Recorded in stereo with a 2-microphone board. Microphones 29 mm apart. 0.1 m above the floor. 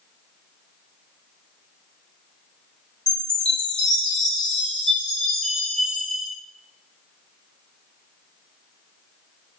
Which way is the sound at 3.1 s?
25° left (ahead or behind).